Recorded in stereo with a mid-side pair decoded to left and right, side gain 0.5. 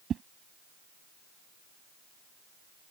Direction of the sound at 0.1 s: 50° right.